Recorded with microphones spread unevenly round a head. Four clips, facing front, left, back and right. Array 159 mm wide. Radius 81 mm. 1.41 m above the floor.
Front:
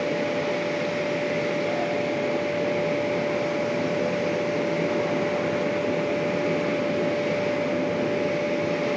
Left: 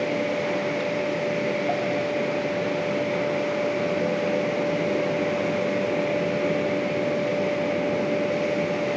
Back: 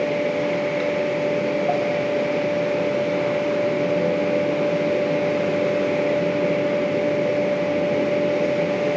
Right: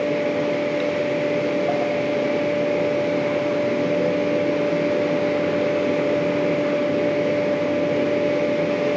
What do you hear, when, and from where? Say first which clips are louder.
0.0 s a fan: right 4 dB, back 4 dB; 130° right, 6.5 m